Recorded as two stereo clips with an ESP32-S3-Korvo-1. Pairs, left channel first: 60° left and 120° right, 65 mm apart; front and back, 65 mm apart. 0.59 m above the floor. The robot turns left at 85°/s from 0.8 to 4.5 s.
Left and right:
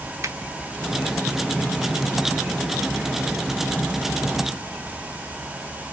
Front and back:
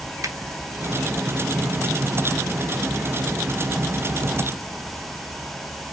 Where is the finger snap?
155° right, 0.9 m.